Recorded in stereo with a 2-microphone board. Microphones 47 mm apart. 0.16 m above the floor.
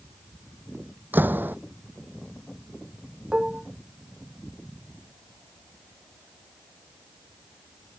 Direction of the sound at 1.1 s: 45° right (ahead or behind).